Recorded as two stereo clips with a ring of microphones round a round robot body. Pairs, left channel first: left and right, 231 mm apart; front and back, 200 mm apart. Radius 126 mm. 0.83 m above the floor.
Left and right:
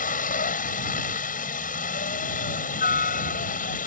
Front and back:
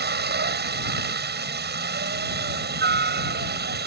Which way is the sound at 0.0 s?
145° left.